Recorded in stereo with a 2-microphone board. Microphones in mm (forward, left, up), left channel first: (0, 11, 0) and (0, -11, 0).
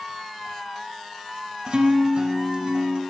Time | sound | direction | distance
1.7 | a guitar | 45° right (ahead or behind) | 1.0 m